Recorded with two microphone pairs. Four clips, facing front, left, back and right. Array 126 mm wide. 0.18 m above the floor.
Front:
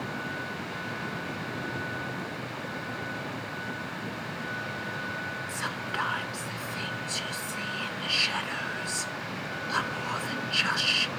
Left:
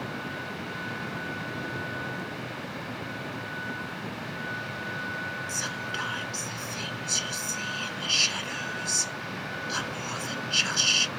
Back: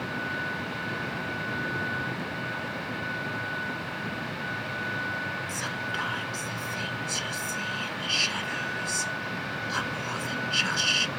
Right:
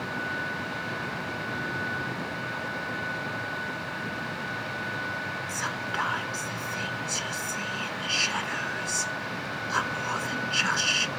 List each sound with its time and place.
5.5 s whispering: 60° right